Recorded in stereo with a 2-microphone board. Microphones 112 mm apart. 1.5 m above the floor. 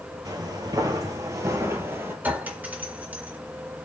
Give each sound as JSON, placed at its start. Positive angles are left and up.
{"t": 0.2, "sound": "footsteps", "side_deg": -35, "distance_m": 1.8}
{"t": 2.2, "sound": "a clink", "side_deg": -15, "distance_m": 2.0}